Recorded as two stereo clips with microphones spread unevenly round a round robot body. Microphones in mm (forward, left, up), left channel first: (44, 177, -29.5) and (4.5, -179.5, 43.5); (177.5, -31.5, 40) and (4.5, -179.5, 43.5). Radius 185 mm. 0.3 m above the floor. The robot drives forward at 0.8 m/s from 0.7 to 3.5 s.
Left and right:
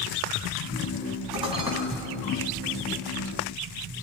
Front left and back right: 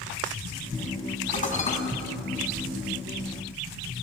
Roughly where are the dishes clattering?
Ahead.